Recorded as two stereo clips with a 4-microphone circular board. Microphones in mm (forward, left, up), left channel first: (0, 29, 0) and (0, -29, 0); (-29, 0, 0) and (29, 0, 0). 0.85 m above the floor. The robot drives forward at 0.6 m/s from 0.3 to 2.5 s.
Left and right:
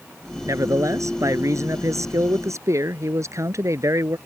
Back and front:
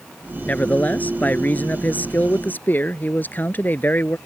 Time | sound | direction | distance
0.5 | a man speaking | 115° right | ?